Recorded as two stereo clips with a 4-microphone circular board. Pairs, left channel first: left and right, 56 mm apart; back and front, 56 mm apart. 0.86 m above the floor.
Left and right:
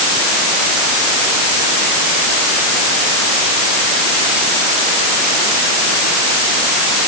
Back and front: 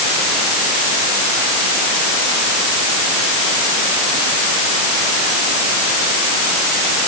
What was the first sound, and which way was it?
Only background noise.